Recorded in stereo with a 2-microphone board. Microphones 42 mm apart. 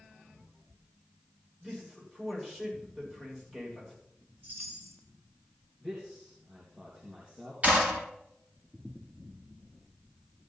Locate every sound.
1.6 s a man speaking: 5° right (ahead or behind), 8.5 m
4.4 s a chime: 55° right (ahead or behind), 6.5 m
5.8 s a man speaking: 25° right (ahead or behind), 3.5 m
7.6 s a clap: 35° right (ahead or behind), 6.5 m